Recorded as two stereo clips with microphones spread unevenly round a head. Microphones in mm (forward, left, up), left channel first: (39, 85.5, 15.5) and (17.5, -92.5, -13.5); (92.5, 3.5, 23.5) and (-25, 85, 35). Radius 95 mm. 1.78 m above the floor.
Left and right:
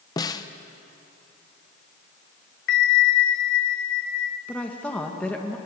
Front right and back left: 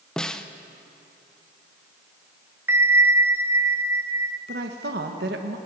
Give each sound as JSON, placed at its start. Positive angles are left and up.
{"t": 0.2, "sound": "a snare drum", "azimuth_deg": 55, "distance_m": 0.8}
{"t": 2.7, "sound": "a bell", "azimuth_deg": 75, "distance_m": 0.9}
{"t": 4.5, "sound": "a woman speaking", "azimuth_deg": 165, "distance_m": 1.8}